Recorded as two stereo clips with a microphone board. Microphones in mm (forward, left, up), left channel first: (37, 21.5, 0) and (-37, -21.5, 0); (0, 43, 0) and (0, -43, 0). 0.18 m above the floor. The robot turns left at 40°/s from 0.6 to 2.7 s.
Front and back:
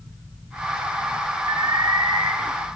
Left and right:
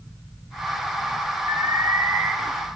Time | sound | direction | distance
1.5 | an alarm | 135° right | 4 m